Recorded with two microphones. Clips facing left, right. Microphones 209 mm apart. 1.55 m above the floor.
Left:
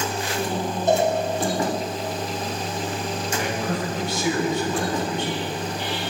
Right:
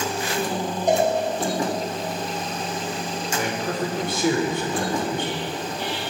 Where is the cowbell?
15° right (ahead or behind), 8.5 m.